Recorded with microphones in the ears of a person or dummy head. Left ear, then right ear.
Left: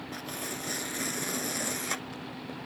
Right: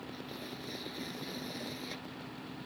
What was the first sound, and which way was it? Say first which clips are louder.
Tearing paper: left 7 dB; 50° left (ahead or behind).